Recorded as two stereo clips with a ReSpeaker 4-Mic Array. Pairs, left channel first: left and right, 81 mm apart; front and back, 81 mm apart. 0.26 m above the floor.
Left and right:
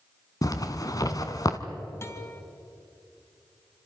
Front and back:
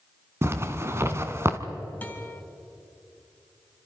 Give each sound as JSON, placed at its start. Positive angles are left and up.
{"t": 0.4, "sound": "a zipper", "azimuth_deg": 125, "distance_m": 1.4}
{"t": 2.0, "sound": "a guitar", "azimuth_deg": 55, "distance_m": 1.9}